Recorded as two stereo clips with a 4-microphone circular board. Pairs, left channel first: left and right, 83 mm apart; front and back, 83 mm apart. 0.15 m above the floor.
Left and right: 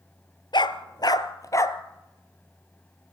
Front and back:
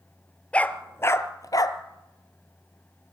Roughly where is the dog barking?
Left.